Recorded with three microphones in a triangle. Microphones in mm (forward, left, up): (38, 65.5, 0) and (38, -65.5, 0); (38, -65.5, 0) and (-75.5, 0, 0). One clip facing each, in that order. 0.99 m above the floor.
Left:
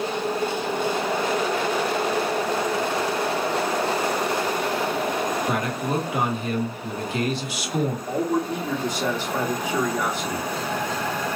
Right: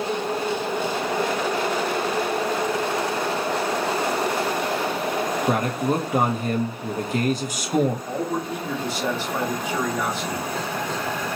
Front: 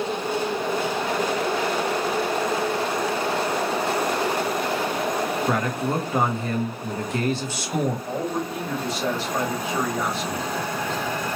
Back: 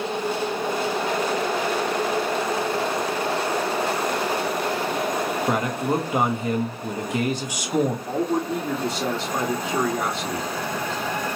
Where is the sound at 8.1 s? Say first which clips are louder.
Left 3 dB, back 3 dB; 165° left, 1.2 m.